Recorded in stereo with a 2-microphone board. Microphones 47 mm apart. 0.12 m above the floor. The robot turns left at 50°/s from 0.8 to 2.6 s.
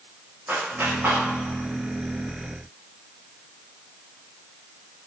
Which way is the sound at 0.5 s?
45° right (ahead or behind).